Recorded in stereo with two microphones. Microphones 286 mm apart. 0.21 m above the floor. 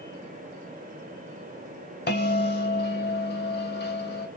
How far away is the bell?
About 0.8 m.